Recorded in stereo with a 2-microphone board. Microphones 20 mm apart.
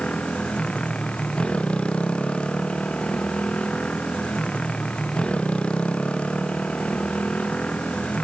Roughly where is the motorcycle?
Left.